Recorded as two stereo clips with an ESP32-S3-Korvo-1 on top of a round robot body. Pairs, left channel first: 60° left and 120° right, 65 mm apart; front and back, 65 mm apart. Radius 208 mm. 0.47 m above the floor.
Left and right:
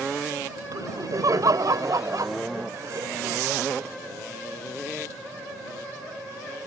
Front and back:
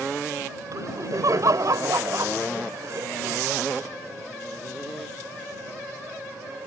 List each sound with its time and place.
0.7 s laughter: 150° right